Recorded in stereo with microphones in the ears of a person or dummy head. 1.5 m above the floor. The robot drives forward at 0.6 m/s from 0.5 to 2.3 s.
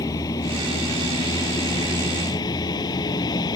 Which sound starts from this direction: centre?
A vehicle, at 0.0 s.